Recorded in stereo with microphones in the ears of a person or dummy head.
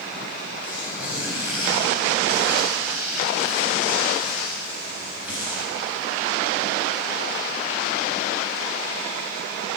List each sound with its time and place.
0.6 s tearing paper: 10° right (ahead or behind), 3 m